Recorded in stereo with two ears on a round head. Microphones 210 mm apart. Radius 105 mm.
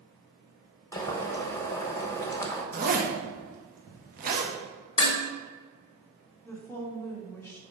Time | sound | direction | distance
0.9 | boiling | 10° left (ahead or behind) | 1.0 m
2.7 | a zipper | 40° right (ahead or behind) | 1.3 m
5.0 | dishes clattering | 25° left (ahead or behind) | 1.6 m
6.5 | a woman speaking | 10° left (ahead or behind) | 1.5 m